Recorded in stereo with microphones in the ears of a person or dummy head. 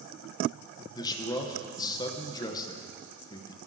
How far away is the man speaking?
About 0.8 m.